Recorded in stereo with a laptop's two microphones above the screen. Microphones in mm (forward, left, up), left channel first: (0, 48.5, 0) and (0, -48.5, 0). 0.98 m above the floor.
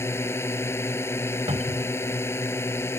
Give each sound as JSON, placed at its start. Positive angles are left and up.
{"t": 0.0, "sound": "a drone", "side_deg": 25}
{"t": 1.5, "sound": "a cupboard door", "side_deg": -75}